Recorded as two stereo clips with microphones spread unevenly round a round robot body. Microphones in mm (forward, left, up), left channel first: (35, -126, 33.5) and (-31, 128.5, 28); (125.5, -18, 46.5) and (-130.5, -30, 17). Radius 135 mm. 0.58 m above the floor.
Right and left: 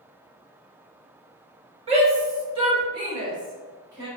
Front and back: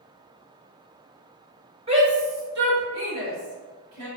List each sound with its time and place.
1.9 s a shout: 150° left, 1.1 m; by 4.1 s straight behind, 2.5 m